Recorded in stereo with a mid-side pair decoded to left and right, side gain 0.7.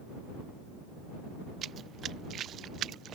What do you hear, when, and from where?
1.6 s running footsteps: 35° right; by 3.2 s 45° right